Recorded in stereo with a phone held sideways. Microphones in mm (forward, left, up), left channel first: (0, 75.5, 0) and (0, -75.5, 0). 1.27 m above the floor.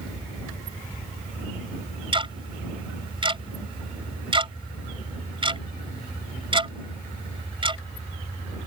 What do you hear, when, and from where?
2.1 s ticking: 35° right (ahead or behind)